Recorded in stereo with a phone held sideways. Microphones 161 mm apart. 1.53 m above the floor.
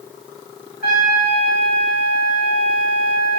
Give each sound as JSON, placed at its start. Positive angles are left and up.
{"t": 0.8, "sound": "a trumpet", "side_deg": 80, "distance_m": 2.5}